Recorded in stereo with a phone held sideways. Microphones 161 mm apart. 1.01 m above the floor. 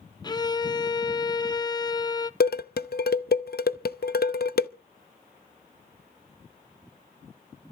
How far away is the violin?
About 0.6 m.